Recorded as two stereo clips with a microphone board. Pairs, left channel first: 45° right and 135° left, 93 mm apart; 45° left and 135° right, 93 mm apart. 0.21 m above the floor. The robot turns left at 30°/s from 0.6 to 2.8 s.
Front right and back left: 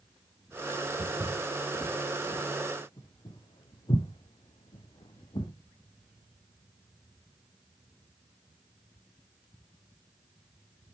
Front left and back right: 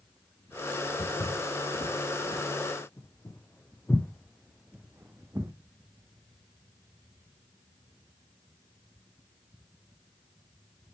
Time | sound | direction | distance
1.0 | footsteps | 60° left | 2.5 m